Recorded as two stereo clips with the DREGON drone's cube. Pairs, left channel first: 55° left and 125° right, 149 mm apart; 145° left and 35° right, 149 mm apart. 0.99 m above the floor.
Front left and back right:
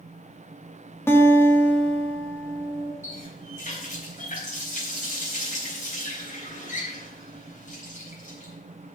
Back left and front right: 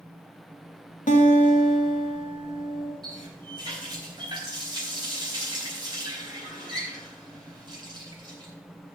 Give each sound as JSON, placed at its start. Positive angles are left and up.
{"t": 1.1, "sound": "a guitar", "azimuth_deg": 130, "distance_m": 1.7}
{"t": 3.0, "sound": "a running tap", "azimuth_deg": 25, "distance_m": 4.5}